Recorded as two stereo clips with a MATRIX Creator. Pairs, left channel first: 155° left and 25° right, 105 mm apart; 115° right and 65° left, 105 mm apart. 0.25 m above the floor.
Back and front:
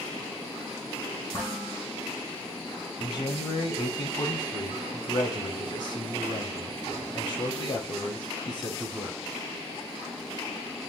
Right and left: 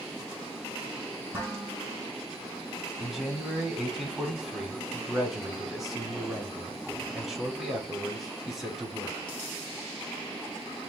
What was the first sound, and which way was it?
Dishes clattering, 135° left.